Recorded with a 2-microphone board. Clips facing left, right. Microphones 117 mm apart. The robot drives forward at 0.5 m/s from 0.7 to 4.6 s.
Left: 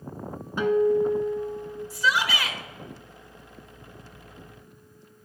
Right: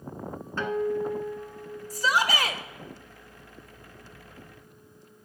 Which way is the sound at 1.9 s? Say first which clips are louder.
Right 1 dB; 40° right (ahead or behind).